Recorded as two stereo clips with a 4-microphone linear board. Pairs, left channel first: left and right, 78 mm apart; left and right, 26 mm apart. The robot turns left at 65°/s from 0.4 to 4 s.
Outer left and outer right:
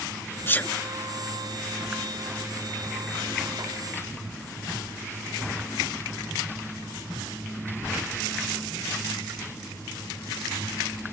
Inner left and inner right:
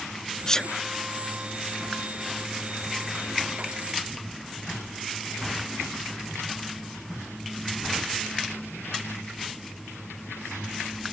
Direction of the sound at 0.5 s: 30° left (ahead or behind).